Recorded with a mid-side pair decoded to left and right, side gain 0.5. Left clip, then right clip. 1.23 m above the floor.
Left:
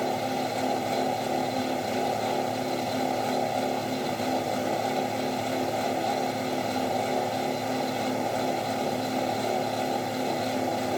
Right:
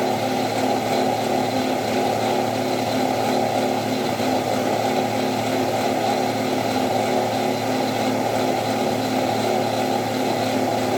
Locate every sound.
0.0 s a fan: 45° right, 0.7 m